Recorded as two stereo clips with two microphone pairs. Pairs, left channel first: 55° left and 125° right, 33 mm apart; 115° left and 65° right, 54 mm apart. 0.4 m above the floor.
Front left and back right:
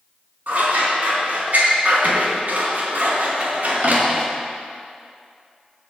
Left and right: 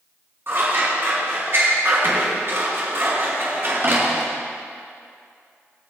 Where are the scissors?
105° right, 4.5 m.